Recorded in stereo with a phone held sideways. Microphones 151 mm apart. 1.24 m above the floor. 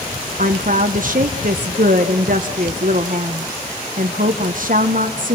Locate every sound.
0.4 s a woman speaking: 60° right (ahead or behind), 1.0 m